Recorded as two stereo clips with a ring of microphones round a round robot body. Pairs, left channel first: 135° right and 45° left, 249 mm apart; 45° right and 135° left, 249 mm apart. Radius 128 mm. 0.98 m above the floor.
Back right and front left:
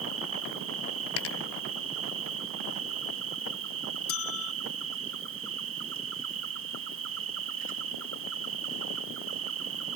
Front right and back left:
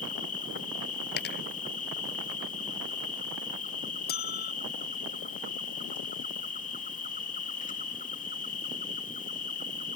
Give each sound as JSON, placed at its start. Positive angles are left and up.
{"t": 0.0, "sound": "an insect", "azimuth_deg": 15}
{"t": 1.2, "sound": "a dropped coin", "azimuth_deg": -95}
{"t": 4.1, "sound": "a bell", "azimuth_deg": -100}